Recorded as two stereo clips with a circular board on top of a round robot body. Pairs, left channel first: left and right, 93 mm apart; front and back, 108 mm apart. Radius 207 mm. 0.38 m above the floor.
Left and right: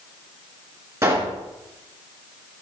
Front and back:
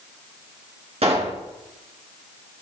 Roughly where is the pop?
Behind right.